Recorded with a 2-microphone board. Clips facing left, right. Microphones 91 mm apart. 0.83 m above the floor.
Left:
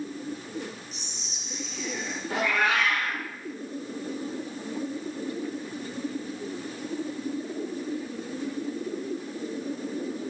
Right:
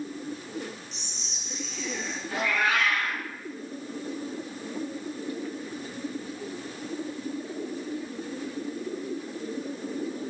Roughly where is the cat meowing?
Left.